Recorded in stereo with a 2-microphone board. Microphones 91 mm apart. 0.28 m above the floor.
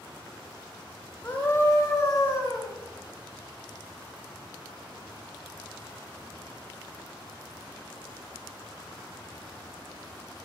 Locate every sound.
1.2 s a scream: 20° left (ahead or behind), 1.2 m; by 2.7 s 35° left (ahead or behind), 2.5 m